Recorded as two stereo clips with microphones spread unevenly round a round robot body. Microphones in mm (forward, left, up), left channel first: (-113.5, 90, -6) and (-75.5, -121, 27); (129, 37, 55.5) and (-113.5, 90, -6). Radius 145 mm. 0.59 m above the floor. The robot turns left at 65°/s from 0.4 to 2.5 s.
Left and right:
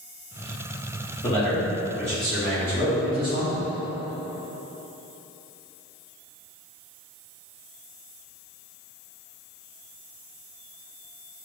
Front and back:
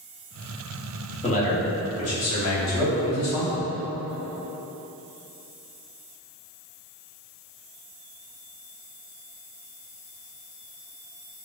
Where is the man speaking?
60° left, 1.1 m; by 3.6 s 20° right, 1.1 m.